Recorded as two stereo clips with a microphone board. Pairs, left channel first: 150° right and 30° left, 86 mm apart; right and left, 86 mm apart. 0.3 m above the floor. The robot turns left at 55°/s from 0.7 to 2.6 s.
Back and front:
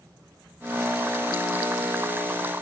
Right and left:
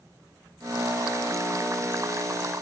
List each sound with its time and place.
Only background noise.